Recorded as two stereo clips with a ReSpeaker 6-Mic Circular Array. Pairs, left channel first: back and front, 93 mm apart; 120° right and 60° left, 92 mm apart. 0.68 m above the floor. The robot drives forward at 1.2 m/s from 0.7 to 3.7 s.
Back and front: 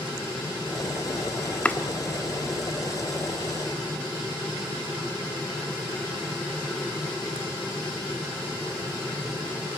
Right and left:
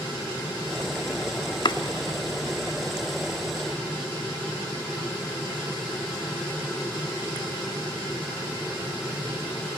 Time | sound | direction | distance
1.6 | chopping | 105° right | 1.2 m